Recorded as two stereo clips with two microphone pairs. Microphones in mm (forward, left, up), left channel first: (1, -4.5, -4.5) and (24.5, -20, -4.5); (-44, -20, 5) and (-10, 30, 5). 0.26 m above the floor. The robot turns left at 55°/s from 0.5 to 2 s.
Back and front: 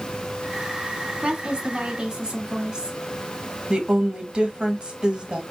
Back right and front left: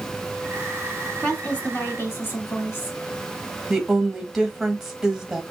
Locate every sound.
1.2 s a woman speaking: 50° right, 2.0 m; by 3.0 s 95° right, 2.0 m
3.7 s a woman speaking: 30° right, 1.5 m